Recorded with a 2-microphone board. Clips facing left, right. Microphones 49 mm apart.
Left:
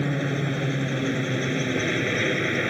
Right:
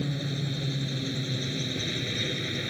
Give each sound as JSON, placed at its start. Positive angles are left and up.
{"t": 0.0, "sound": "a helicopter", "side_deg": 45}